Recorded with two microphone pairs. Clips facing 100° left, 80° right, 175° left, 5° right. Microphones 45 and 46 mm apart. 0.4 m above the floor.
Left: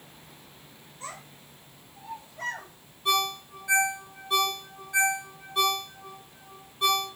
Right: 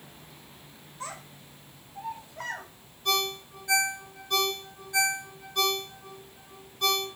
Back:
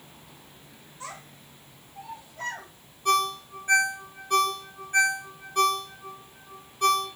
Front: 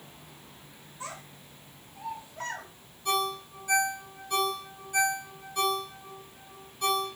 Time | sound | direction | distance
1.0 | a child speaking | 80° right | 1.6 m
3.0 | a ringtone | 165° left | 0.9 m